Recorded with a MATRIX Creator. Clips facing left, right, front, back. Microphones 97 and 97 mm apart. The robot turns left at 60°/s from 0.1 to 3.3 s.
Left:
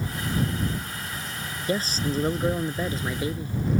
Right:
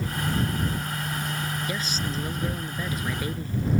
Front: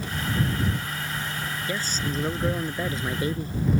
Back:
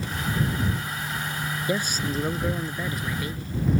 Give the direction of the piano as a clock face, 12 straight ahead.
No piano in this recording.